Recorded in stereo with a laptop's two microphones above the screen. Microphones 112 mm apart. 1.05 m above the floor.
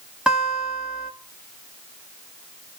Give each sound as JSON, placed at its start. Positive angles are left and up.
{"t": 0.3, "sound": "a guitar", "side_deg": -5, "distance_m": 2.0}